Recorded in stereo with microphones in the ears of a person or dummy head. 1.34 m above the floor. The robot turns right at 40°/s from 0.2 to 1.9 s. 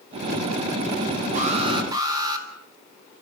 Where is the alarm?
45° right (ahead or behind), 4 m; by 2.5 s 20° right (ahead or behind), 4 m.